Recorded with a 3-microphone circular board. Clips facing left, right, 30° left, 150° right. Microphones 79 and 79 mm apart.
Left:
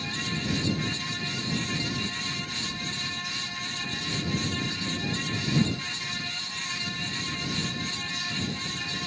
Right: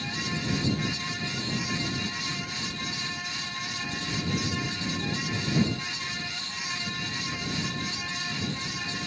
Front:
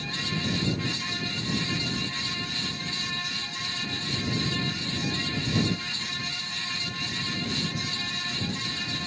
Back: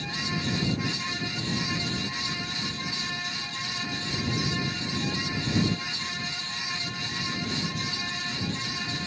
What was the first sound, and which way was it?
Only background noise.